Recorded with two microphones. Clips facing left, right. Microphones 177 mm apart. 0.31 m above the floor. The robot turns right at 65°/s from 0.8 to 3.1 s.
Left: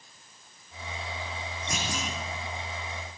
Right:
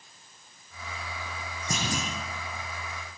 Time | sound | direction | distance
1.7 | a clunk | 35° right (ahead or behind) | 7 m